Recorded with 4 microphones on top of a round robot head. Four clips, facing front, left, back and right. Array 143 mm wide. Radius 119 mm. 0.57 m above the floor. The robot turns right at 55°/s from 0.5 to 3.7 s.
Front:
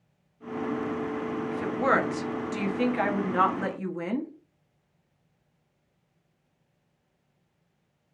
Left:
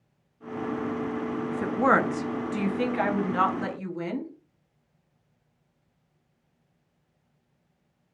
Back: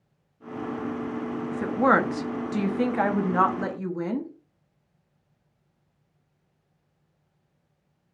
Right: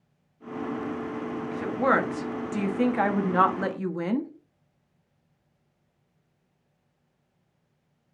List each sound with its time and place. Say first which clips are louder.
1.5 s a woman speaking: left 1 dB, back 4 dB; 135° left, 0.8 m; by 4.3 s 100° right, 0.8 m